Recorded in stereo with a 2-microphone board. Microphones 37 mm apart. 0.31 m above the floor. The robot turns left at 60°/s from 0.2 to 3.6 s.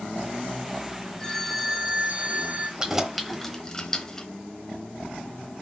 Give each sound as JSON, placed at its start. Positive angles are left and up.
{"t": 1.2, "sound": "a phone ringing", "azimuth_deg": 25, "distance_m": 1.4}
{"t": 2.8, "sound": "keys jangling", "side_deg": -20, "distance_m": 1.0}